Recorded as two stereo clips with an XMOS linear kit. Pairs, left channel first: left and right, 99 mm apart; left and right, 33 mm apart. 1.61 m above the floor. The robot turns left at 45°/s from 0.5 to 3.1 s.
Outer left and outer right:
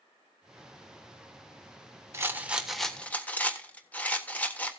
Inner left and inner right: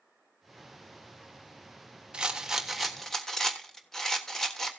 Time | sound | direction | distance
2.1 | a rattle | 150° right | 1.4 m